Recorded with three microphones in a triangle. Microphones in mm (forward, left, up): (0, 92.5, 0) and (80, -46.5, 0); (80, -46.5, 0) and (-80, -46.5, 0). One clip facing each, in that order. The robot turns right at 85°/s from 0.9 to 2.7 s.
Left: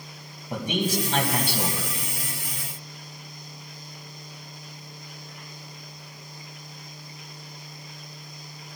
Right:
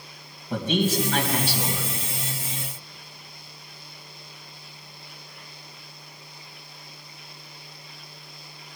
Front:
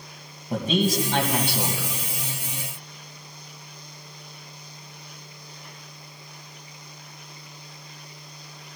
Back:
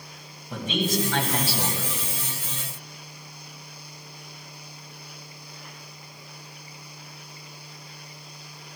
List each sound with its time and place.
0.5 s a man speaking: 45° left, 2.5 m; by 1.9 s 130° left, 2.5 m